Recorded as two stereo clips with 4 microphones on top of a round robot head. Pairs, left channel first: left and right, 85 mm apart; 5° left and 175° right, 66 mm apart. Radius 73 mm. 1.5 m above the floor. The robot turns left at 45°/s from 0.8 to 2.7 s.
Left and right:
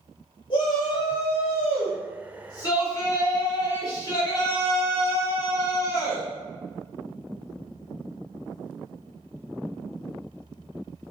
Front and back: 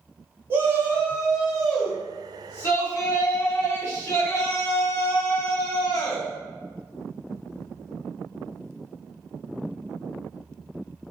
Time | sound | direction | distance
0.5 | a shout | 125° left | 3 m